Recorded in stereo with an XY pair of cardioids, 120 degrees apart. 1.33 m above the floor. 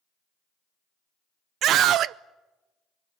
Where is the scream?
65° right, 0.6 m.